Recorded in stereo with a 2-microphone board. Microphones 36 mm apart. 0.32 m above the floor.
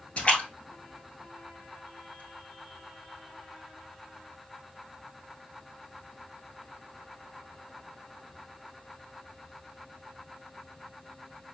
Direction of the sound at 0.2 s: 40° left (ahead or behind).